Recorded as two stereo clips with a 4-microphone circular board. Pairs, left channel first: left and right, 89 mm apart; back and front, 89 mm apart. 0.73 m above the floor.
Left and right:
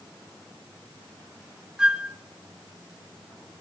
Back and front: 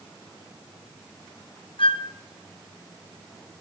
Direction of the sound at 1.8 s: 170° right.